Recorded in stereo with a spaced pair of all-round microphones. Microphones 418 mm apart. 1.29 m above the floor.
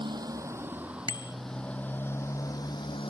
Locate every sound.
0.0 s a motorcycle: 10° right (ahead or behind); by 3.1 s 15° left (ahead or behind)
1.1 s a bicycle bell: 75° left (ahead or behind)